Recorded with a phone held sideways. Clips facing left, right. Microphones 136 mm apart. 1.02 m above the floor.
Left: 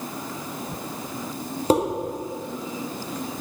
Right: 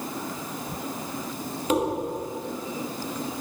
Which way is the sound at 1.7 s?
35° left (ahead or behind).